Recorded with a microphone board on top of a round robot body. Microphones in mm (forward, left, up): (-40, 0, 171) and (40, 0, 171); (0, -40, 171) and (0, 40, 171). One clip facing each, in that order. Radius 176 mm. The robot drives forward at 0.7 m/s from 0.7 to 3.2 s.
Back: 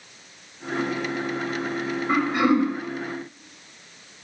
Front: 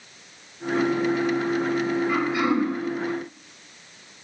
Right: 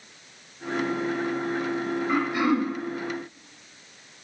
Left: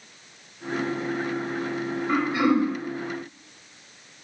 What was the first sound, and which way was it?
Throat clearing, 140° left.